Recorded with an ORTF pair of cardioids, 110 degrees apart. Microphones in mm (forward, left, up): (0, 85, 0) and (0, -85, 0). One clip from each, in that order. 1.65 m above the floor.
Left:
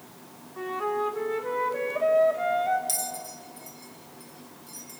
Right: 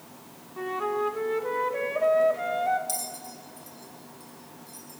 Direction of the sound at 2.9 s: 15° left.